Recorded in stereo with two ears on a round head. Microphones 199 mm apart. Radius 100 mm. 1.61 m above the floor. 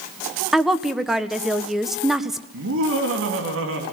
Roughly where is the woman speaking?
Centre.